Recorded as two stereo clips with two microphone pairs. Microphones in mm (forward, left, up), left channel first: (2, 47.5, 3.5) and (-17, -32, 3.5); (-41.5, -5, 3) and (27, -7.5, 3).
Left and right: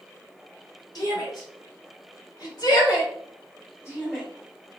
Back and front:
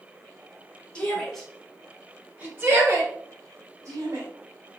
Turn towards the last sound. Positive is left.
turn(degrees=20)